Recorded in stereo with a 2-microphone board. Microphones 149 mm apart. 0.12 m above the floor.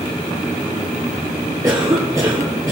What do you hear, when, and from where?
1.6 s a cough: 25° right (ahead or behind), 3 m